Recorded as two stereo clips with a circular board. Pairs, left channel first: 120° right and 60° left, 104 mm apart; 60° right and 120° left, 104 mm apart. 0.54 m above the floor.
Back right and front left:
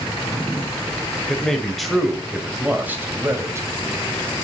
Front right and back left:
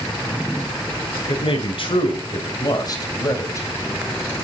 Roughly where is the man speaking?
Ahead right.